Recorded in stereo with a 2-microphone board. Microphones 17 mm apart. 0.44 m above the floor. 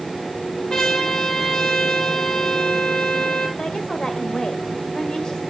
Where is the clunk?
No clunk in this recording.